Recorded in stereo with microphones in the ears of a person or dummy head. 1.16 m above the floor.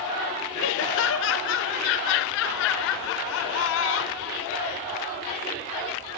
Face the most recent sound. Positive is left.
turn(degrees=60)  # may be behind; listen again after turning